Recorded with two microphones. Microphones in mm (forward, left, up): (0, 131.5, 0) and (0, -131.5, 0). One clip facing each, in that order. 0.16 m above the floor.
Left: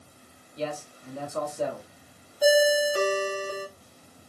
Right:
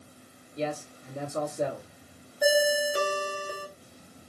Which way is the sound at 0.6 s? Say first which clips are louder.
Right 1 dB; 25° right (ahead or behind).